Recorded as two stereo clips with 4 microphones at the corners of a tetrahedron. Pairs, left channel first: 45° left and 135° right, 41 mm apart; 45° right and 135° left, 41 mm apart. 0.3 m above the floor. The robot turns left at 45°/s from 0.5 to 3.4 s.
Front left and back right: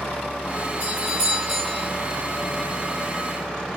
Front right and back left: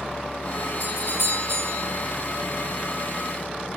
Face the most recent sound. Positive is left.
turn(degrees=55)